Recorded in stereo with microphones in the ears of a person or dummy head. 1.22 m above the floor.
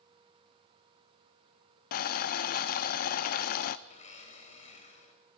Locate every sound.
1.9 s boiling: 40° left (ahead or behind), 0.8 m
3.9 s a blender: 35° left (ahead or behind), 3.5 m